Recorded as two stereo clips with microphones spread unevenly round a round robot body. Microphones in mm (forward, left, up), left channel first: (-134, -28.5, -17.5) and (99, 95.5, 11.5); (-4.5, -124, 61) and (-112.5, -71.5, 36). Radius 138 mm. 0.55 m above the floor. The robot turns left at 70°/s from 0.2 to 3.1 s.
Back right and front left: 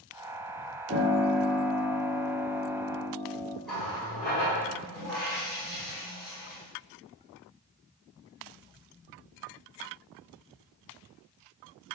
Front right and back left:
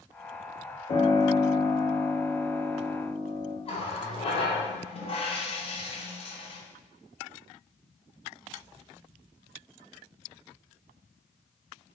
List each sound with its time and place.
0.9 s a piano: 40° right, 1.0 m; by 3.5 s 165° left, 1.0 m
3.6 s a running tap: 70° right, 0.8 m